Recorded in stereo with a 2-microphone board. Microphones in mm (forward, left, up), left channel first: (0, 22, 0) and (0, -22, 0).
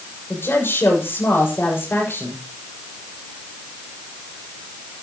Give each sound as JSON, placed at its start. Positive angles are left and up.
{"t": 0.3, "sound": "a woman speaking", "side_deg": 60, "distance_m": 6.5}